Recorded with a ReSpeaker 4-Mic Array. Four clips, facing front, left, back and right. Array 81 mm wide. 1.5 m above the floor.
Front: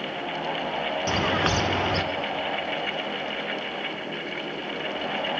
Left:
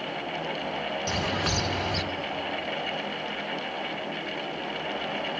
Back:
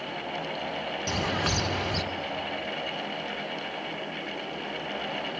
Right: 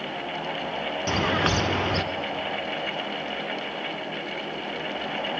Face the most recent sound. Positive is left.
turn(degrees=-50)